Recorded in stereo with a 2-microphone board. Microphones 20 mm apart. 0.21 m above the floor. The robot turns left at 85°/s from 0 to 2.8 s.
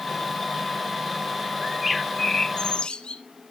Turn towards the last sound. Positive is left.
turn(degrees=105)